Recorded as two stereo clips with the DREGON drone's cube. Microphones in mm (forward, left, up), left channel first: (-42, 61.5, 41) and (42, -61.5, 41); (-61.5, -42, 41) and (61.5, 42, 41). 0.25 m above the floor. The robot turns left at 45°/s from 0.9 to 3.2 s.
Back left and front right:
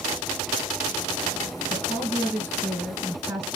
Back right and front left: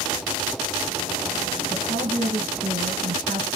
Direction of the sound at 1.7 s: 85° left.